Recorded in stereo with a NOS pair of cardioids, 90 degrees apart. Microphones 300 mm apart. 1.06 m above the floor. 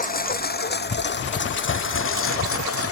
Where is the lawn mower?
30° left; by 2.9 s 50° left.